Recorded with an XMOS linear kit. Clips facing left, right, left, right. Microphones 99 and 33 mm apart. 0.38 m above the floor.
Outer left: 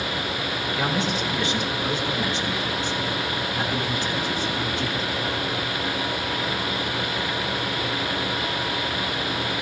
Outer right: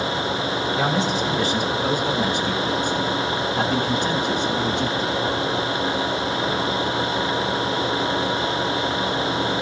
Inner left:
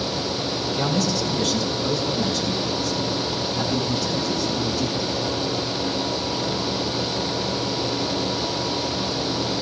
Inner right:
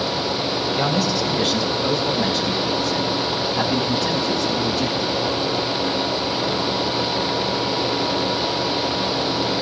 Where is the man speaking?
30° right (ahead or behind), 2.5 m; by 5.2 s 65° right (ahead or behind), 4 m.